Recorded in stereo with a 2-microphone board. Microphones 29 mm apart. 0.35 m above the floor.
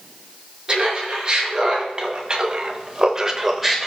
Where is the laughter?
25° right (ahead or behind), 4 m; by 3.9 s 5° left (ahead or behind), 1.2 m.